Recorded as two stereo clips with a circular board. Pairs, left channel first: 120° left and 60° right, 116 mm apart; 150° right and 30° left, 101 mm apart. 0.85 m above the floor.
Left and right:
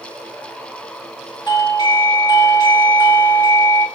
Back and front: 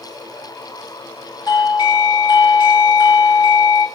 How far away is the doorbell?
About 1.9 m.